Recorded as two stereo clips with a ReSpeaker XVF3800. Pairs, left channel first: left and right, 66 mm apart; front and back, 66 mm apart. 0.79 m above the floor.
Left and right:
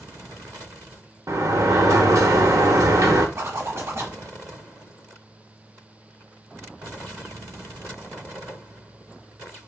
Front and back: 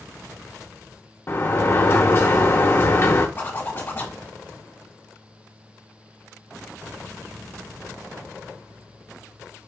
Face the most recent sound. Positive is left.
turn(degrees=-55)